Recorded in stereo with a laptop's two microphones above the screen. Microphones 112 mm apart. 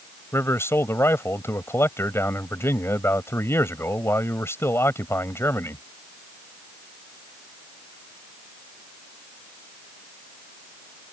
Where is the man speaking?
20° left (ahead or behind).